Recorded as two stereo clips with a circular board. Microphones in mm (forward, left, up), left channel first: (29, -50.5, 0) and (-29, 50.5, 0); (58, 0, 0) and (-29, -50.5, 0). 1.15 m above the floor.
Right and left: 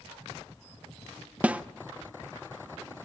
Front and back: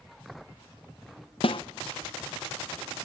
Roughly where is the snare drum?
Ahead left.